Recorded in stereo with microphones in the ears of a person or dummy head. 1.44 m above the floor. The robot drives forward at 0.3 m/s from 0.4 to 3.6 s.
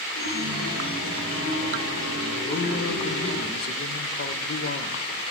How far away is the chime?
About 5 m.